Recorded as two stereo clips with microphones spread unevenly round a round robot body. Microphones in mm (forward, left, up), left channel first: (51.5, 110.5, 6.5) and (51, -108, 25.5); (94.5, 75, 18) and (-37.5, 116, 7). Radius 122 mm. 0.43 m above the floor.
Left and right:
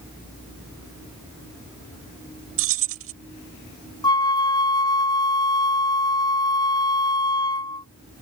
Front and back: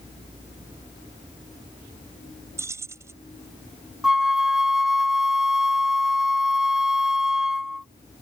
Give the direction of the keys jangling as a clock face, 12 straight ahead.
4 o'clock.